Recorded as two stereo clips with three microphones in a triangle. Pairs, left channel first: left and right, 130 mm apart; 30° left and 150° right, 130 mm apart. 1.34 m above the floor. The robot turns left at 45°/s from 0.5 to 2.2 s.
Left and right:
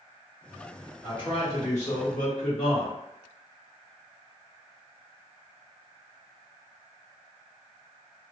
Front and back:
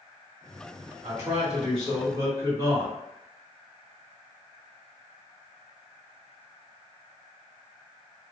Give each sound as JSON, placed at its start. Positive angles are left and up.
{"t": 1.0, "sound": "a man speaking", "azimuth_deg": 145, "distance_m": 1.7}